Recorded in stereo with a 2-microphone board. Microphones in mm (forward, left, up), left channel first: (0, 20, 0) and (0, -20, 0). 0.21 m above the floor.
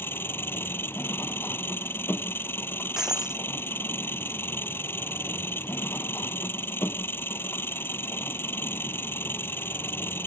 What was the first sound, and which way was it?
An engine running, 70° left (ahead or behind).